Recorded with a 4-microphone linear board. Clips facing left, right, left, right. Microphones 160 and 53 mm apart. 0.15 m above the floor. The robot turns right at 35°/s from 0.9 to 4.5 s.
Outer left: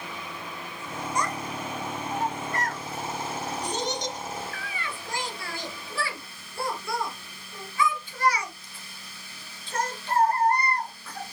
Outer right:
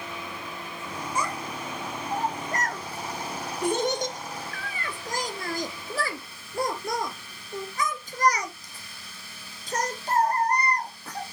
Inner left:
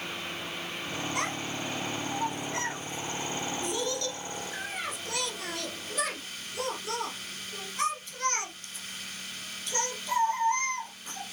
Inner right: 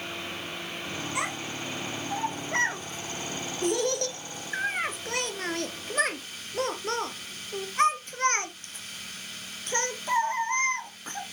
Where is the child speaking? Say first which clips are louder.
Outer left 1 dB, inner right 1 dB; 5° right (ahead or behind), 1.6 m; by 11.2 s 45° right (ahead or behind), 1.6 m.